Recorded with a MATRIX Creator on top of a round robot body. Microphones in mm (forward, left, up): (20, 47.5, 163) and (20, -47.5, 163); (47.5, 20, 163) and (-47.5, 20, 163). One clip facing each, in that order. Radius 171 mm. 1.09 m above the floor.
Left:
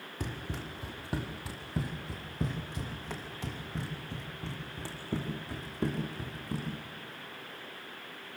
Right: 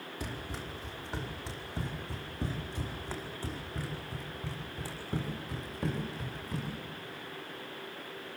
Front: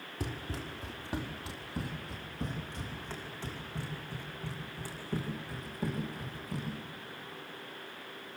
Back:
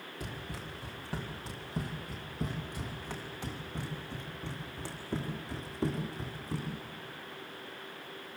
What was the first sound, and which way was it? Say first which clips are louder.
Running footsteps: left 2 dB, front 4 dB; 50° left.